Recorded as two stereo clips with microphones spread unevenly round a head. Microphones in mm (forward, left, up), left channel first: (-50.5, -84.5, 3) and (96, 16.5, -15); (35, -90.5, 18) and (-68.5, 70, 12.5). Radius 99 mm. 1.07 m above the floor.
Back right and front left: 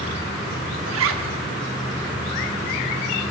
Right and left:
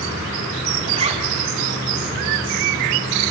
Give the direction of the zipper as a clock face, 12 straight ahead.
10 o'clock.